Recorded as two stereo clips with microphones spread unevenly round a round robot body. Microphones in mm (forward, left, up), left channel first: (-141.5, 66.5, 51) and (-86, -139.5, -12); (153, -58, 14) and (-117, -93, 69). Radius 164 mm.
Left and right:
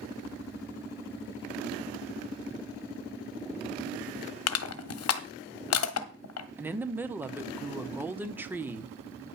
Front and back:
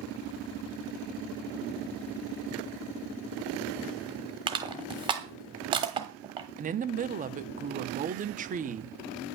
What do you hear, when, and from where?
4.5 s crushing: 110° left, 1.1 m
6.6 s a woman speaking: 115° right, 1.0 m